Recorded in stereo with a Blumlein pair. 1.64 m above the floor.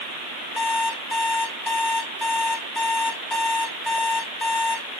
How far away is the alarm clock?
About 4 m.